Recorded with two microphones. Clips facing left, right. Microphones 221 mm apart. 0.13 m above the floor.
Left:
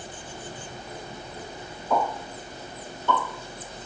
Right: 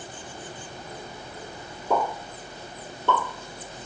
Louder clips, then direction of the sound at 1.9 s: Even; 60° right (ahead or behind).